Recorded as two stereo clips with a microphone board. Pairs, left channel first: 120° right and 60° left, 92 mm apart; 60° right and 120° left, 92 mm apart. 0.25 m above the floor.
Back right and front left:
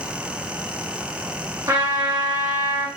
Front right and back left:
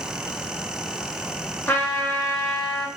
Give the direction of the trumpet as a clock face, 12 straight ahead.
12 o'clock.